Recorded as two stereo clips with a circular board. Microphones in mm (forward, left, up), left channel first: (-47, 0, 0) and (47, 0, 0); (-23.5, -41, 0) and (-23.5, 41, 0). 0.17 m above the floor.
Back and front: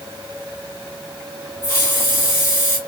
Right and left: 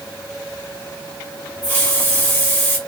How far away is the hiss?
About 1.3 m.